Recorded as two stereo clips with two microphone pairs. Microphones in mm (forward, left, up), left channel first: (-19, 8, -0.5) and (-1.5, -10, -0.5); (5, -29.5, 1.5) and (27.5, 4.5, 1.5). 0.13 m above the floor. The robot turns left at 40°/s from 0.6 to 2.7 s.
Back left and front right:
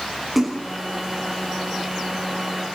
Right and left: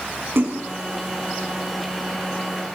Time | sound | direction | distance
0.3 | a splash | 40° left | 8 m